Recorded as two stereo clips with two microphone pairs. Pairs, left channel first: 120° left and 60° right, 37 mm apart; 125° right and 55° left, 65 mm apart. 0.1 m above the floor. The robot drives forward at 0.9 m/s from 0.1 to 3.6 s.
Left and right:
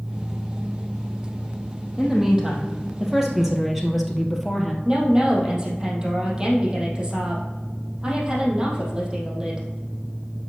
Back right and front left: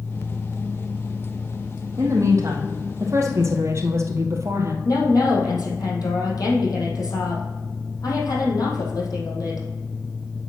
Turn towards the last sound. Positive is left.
turn(degrees=-125)